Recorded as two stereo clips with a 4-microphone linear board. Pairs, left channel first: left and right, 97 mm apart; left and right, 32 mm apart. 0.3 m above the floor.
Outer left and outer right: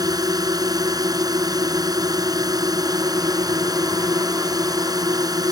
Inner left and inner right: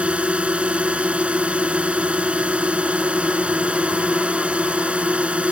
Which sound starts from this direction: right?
A drone, at 0.0 s.